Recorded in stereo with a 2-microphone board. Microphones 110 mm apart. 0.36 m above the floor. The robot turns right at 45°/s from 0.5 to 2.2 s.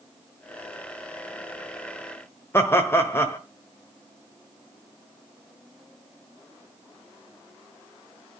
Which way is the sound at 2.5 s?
20° left (ahead or behind).